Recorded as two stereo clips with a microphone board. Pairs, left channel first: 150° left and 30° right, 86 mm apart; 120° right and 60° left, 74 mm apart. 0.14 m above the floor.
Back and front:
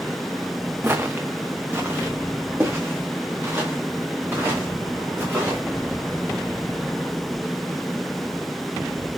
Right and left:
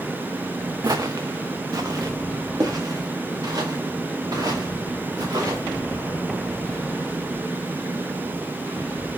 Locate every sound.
0.8 s footsteps: 35° left, 0.7 m